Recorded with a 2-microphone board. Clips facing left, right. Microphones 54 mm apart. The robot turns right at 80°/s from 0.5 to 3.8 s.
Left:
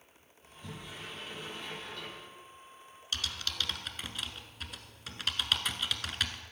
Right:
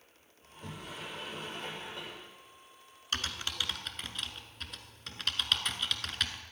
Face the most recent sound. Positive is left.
turn(degrees=0)  # may be behind; listen again after turning